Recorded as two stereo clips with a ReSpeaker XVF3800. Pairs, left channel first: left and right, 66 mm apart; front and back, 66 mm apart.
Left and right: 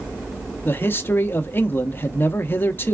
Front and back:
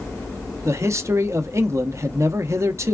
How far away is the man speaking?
About 0.6 m.